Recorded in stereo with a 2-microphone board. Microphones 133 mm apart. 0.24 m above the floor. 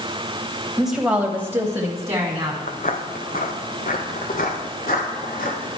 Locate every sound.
0.8 s a woman speaking: centre (ahead or behind), 0.9 m; by 2.6 s 20° right (ahead or behind), 1.7 m
2.7 s footsteps: 65° left (ahead or behind), 0.8 m; by 5.8 s 85° left, 3 m